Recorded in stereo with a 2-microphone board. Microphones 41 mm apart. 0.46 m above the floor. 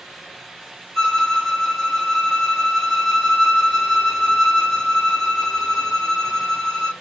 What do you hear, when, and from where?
0.9 s a violin: 5° left (ahead or behind), 1.0 m